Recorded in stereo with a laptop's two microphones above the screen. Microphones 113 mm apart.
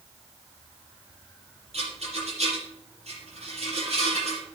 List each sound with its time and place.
1.7 s a rattle: 65° right (ahead or behind), 6 m